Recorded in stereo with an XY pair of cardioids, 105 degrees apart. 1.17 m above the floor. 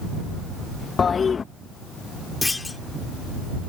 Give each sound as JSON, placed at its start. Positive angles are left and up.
{"t": 1.0, "sound": "a toilet flushing", "azimuth_deg": 40}
{"t": 2.4, "sound": "a clunk", "azimuth_deg": 25}